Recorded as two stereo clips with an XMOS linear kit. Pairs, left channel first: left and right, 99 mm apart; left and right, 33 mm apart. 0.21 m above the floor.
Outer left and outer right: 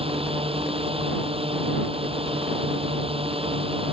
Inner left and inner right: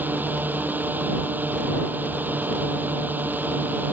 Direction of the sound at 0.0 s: 70° right (ahead or behind).